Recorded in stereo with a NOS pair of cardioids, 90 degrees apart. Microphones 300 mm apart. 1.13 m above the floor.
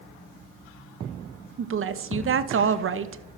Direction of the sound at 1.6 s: 45° right.